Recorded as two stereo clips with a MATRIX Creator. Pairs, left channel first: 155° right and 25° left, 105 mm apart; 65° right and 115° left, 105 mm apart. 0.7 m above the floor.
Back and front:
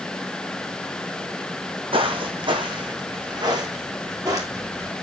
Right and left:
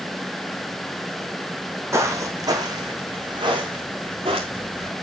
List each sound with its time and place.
1.9 s footsteps: 50° left, 2.0 m; by 4.9 s 80° left, 3 m